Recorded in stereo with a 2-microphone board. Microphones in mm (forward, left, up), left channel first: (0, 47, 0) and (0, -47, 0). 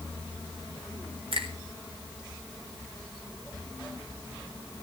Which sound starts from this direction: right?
A finger snap, at 1.3 s.